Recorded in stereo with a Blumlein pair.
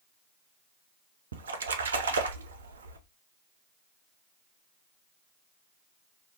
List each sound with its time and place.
1.3 s a splash: 65° right, 0.6 m